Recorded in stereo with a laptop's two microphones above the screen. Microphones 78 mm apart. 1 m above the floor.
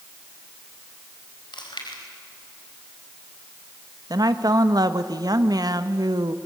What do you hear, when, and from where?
1.5 s chewing: 80° left, 4.5 m
4.1 s a woman speaking: 55° right (ahead or behind), 1.3 m